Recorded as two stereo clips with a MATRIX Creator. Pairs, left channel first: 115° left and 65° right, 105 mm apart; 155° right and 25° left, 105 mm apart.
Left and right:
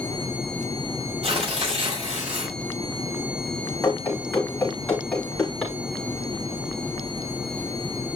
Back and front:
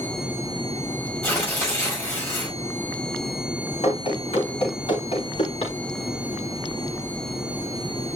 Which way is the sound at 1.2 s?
85° right.